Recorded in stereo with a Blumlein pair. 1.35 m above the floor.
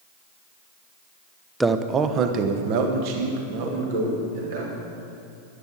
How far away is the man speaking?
About 0.7 m.